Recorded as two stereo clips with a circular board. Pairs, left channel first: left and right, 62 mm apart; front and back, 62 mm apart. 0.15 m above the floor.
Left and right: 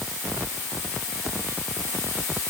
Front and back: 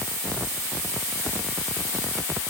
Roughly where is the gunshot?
No gunshot in this recording.